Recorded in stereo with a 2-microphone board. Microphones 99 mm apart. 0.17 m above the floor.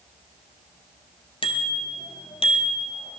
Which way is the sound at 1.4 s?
65° left (ahead or behind).